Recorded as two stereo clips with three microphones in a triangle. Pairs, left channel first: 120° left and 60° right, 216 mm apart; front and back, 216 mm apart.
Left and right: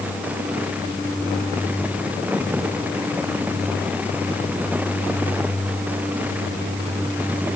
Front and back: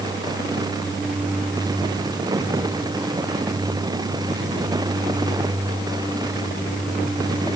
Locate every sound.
Only background noise.